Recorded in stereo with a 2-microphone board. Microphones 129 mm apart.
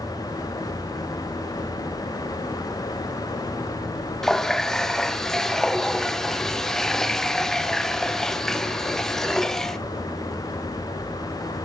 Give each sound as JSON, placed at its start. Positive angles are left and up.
{"t": 4.2, "sound": "a running tap", "side_deg": 5, "distance_m": 0.6}